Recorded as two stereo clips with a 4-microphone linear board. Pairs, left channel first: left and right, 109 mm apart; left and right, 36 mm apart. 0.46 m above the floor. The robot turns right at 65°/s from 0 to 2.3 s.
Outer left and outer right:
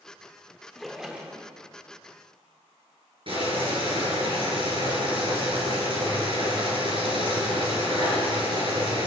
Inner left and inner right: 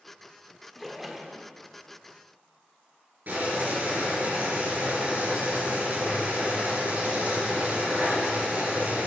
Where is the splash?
170° left, 1.2 m; by 1.5 s 140° right, 1.2 m.